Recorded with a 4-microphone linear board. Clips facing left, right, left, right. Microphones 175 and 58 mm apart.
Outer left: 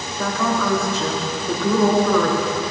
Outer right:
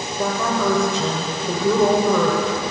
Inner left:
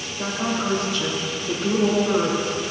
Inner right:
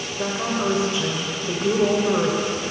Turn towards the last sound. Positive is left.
turn(degrees=-20)  # may be behind; listen again after turning